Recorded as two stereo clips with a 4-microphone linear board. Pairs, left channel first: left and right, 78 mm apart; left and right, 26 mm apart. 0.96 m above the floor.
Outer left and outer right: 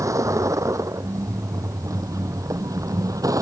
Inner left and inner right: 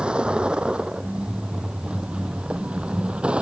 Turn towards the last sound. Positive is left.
turn(degrees=-50)  # may be behind; listen again after turning